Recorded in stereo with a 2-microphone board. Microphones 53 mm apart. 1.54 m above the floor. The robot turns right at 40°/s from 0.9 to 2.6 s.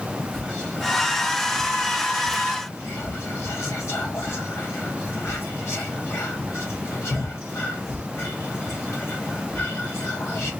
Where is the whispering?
Centre (ahead or behind), 0.8 m; by 10.5 s 65° left (ahead or behind), 0.8 m.